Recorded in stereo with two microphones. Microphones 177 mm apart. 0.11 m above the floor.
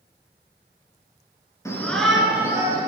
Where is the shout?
15° left (ahead or behind), 1.2 m; by 2.9 s 20° right (ahead or behind), 1.8 m.